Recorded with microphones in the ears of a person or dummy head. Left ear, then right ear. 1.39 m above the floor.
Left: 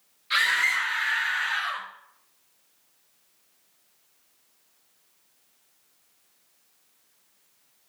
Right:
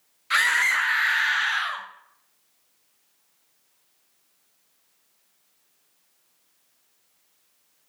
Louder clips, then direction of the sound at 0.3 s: Right 2 dB; 45° right (ahead or behind).